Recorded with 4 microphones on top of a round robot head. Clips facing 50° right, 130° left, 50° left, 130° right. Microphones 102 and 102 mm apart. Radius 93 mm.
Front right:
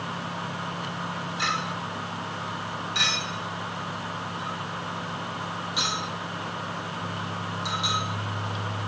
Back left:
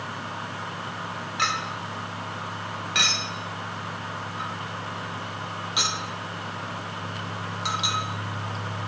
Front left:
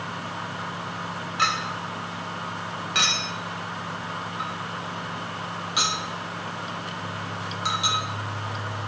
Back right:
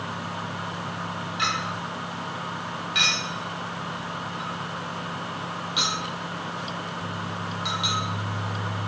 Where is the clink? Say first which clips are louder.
Back left 2 dB, front left 3 dB; 100° left, 0.6 m.